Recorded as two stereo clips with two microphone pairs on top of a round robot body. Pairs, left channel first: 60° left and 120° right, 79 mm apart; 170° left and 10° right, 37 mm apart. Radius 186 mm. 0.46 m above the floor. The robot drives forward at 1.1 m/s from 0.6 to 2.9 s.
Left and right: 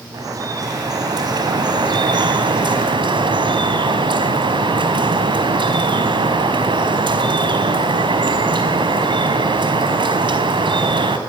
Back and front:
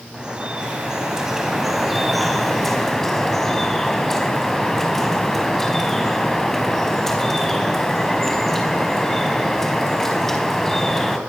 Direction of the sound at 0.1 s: 80° right.